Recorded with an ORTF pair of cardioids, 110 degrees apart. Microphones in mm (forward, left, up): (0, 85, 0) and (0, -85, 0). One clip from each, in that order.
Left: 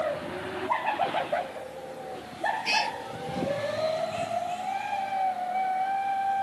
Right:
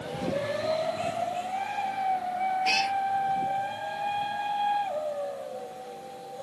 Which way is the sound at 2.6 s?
5° right.